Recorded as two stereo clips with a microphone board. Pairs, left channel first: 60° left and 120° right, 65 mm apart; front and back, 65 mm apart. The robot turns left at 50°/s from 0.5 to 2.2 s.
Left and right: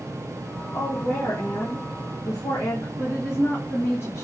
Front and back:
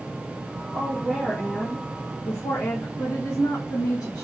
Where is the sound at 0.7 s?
110° left, 1.4 m; by 2.9 s 35° left, 1.4 m.